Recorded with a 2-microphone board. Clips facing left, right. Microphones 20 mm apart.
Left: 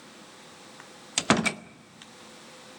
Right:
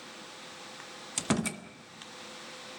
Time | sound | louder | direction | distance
1.2 | a door slam | left 7 dB | 35° left (ahead or behind) | 0.7 m